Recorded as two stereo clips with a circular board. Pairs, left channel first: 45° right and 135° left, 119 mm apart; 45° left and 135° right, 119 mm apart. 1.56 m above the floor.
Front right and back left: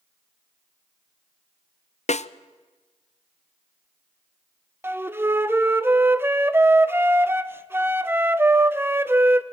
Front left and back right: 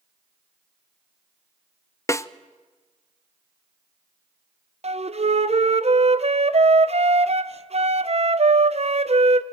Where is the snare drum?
20° right, 0.6 m.